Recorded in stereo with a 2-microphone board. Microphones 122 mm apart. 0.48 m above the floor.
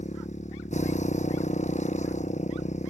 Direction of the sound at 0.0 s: 70° left (ahead or behind).